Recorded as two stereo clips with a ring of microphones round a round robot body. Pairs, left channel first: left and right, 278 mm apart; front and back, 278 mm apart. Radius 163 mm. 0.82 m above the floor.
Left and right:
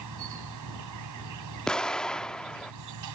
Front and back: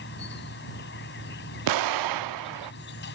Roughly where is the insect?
Ahead right.